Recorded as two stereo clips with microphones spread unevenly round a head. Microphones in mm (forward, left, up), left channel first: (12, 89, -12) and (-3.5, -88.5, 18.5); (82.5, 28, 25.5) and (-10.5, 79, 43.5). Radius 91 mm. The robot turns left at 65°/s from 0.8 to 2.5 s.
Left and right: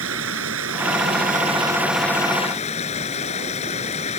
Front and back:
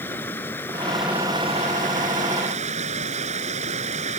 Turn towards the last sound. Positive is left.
turn(degrees=140)